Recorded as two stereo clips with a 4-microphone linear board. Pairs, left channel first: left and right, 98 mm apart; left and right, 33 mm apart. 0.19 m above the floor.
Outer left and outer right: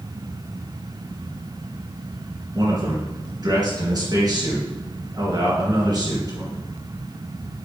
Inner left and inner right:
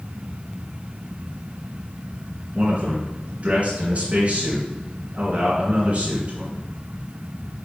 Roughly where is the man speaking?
Right.